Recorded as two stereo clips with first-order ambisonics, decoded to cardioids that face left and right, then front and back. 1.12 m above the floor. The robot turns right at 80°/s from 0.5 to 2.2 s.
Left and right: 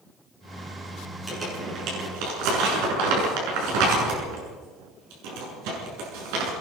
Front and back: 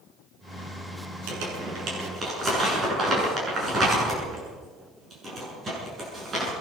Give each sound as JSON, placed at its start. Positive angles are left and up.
{"t": 1.3, "sound": "crumpling", "azimuth_deg": 180, "distance_m": 8.5}